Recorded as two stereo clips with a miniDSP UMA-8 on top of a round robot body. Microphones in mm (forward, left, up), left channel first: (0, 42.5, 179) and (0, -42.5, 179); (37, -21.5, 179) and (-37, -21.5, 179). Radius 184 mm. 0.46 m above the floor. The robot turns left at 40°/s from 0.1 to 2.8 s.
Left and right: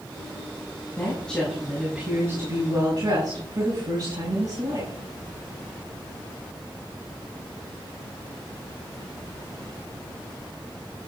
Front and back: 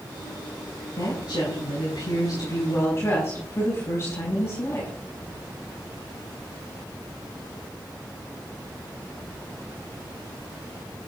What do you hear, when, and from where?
1.0 s a woman speaking: 20° left, 5.5 m; by 4.9 s 50° right, 5.5 m